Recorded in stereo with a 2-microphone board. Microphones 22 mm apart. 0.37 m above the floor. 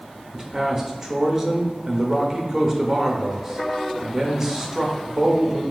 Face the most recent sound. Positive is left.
turn(degrees=-20)  # may be behind; listen again after turning